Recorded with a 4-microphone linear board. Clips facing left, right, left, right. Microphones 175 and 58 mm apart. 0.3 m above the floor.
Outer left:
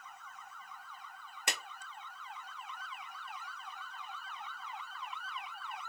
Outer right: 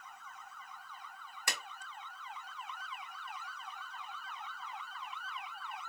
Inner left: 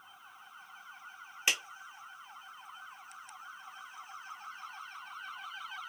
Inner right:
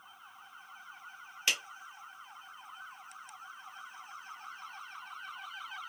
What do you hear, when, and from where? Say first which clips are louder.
1.5 s a clap: outer left 2 dB, inner left 1 dB; 20° left (ahead or behind), 0.8 m